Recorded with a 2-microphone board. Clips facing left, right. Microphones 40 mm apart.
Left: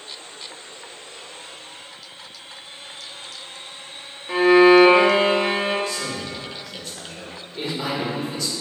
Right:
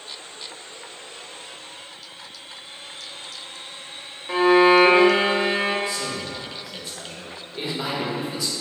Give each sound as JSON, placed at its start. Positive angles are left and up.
{"t": 4.3, "sound": "a violin", "side_deg": -5, "distance_m": 0.6}
{"t": 5.9, "sound": "a man speaking", "side_deg": -10, "distance_m": 1.2}